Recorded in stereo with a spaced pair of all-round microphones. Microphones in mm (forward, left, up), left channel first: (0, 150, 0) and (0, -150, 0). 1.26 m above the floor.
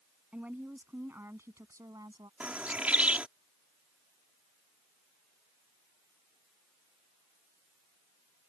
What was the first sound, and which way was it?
A woman speaking, 5° right (ahead or behind).